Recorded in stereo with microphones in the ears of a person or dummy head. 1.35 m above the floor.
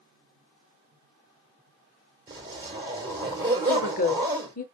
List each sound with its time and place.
2.3 s a zipper: 20° right (ahead or behind), 3 m
3.7 s a woman speaking: 45° left (ahead or behind), 0.6 m